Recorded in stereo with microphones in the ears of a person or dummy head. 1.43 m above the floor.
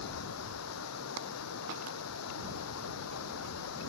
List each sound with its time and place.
0.0 s running water: 85° left